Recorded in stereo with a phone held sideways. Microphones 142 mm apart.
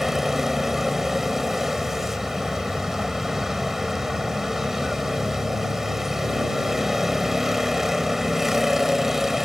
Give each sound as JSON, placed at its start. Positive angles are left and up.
{"t": 0.0, "sound": "a vehicle", "side_deg": 0}